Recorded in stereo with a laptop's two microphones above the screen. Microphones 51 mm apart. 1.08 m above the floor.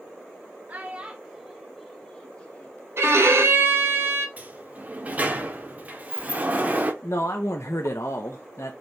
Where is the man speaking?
70° left (ahead or behind), 0.6 m.